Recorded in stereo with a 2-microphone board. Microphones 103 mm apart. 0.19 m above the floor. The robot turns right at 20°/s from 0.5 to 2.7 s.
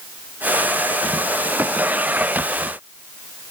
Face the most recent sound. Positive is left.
No sound to turn to.